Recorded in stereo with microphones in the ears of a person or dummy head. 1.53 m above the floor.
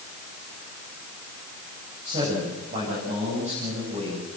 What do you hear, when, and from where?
2.0 s a man speaking: 30° right (ahead or behind), 8.5 m; by 4.3 s 35° right (ahead or behind), 9.5 m